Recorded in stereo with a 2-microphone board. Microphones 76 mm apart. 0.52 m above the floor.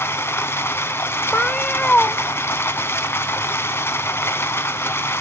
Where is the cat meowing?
15° left (ahead or behind), 0.9 m.